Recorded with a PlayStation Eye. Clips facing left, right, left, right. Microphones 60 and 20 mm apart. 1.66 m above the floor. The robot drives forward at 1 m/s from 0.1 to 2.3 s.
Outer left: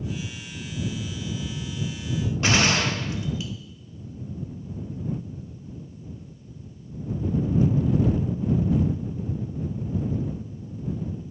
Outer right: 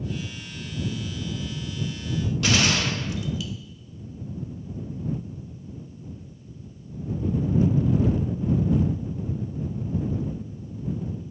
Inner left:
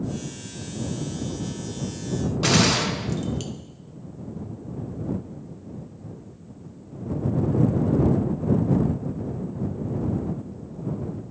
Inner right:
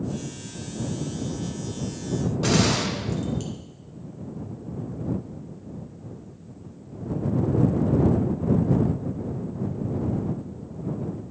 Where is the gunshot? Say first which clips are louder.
Outer left 2 dB, inner left 3 dB; 30° left (ahead or behind), 0.6 m.